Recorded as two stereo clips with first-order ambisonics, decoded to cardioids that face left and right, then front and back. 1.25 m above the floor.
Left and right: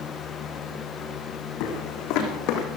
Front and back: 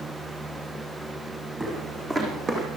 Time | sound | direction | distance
1.6 | footsteps | 95° left | 3.5 m